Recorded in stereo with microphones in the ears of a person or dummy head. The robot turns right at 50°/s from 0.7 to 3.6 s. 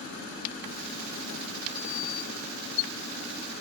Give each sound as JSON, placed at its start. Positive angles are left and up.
{"t": 1.8, "sound": "a sliding door", "azimuth_deg": 70}